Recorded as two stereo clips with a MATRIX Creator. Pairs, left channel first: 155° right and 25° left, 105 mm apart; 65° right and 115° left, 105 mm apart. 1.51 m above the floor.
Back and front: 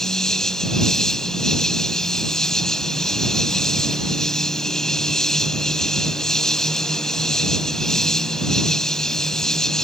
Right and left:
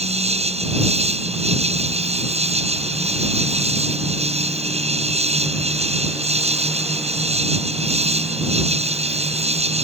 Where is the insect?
115° left.